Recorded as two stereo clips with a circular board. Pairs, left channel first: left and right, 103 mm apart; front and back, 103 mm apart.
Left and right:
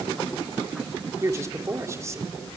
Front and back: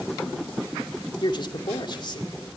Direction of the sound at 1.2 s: 35° right.